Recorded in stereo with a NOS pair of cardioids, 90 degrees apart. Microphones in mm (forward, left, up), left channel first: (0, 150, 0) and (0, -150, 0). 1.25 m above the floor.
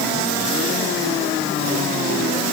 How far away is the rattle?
No rattle in this recording.